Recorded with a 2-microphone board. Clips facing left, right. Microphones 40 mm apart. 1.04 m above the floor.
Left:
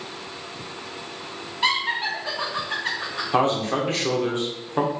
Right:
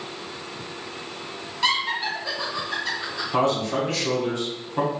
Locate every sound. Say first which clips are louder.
1.6 s laughter: left 1 dB; 25° left (ahead or behind), 1.7 m; by 3.2 s 50° left (ahead or behind), 1.9 m
3.3 s a man speaking: left 1 dB; 40° left (ahead or behind), 1.0 m